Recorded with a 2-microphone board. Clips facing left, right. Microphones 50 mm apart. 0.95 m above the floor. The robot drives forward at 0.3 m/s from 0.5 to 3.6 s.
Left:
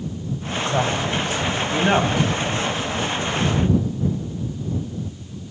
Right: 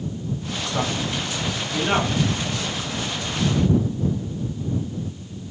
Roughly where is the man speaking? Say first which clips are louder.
Left 3 dB; left.